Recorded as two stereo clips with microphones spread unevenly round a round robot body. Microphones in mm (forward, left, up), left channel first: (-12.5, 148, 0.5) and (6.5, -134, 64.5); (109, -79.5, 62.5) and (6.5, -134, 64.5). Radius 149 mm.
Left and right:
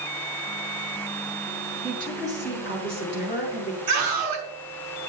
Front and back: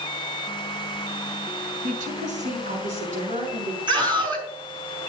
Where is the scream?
100° right, 5.5 m.